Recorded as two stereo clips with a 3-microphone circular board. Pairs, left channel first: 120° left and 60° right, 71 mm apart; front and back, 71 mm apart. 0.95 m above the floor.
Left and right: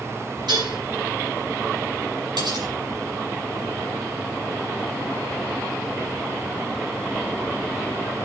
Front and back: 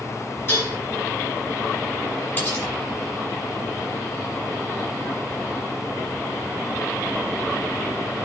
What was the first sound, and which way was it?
Dishes clattering, 55° right.